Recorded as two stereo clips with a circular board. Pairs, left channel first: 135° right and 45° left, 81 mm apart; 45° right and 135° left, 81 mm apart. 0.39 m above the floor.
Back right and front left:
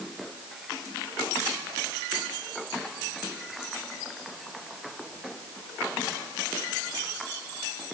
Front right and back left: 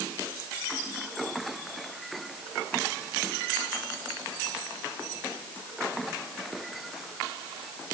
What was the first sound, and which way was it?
Only background noise.